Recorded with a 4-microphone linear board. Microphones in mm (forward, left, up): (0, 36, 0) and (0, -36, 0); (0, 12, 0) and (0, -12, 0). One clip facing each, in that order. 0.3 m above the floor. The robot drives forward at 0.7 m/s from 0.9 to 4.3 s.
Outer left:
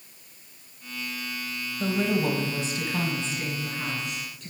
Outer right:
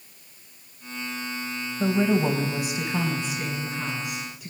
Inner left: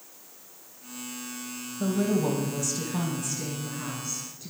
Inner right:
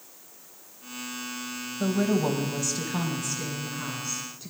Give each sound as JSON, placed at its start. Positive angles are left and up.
{"t": 1.8, "sound": "a woman speaking", "side_deg": -25, "distance_m": 1.1}